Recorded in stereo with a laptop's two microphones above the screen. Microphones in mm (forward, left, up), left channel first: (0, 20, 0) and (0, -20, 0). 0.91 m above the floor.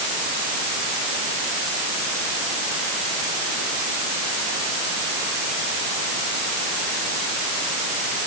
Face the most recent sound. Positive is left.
No sound to turn to.